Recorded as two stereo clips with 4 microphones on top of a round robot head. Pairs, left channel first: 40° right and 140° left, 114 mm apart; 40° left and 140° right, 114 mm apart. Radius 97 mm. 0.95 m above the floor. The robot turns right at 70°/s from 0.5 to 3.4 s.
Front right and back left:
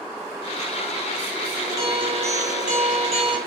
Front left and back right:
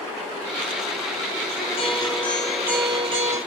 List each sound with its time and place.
1.6 s a guitar: 65° left, 3.5 m; by 3.4 s 165° right, 3.5 m